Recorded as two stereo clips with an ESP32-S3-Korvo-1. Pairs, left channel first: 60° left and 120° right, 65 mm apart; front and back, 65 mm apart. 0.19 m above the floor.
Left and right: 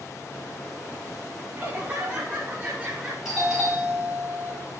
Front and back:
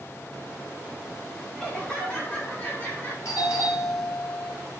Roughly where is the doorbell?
Ahead right.